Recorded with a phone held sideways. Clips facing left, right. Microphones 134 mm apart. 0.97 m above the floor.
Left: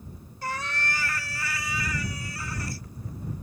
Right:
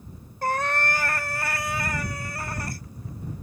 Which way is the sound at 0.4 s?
55° right (ahead or behind).